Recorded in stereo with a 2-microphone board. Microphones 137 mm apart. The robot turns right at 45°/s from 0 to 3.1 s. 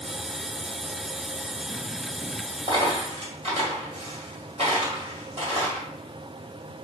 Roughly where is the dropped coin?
Right.